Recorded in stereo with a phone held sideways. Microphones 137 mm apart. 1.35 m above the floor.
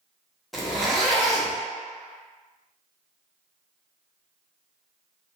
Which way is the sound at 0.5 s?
Centre (ahead or behind).